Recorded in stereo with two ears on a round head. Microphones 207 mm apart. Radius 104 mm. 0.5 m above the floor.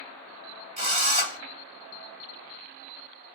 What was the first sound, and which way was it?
A drill, 30° right (ahead or behind).